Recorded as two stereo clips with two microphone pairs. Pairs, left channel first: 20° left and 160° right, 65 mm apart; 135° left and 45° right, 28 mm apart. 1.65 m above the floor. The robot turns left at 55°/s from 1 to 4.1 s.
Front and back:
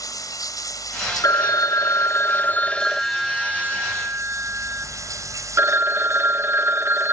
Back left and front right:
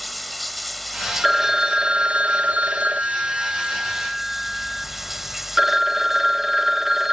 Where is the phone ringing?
35° left; by 7.1 s 125° right.